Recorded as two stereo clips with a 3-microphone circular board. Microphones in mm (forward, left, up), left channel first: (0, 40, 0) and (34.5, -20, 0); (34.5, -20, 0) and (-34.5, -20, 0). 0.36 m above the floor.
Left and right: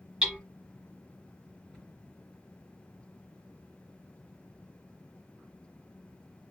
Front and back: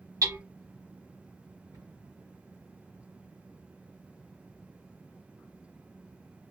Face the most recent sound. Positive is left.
turn(degrees=-150)